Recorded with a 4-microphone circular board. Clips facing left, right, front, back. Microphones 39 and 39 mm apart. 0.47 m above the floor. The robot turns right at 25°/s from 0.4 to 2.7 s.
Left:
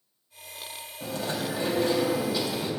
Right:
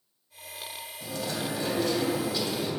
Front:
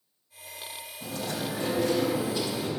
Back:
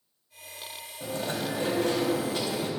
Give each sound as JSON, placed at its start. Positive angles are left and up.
{"t": 1.0, "sound": "chewing", "azimuth_deg": 135, "distance_m": 3.5}